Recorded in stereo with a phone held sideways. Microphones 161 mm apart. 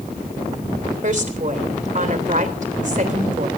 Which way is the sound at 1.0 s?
50° right (ahead or behind).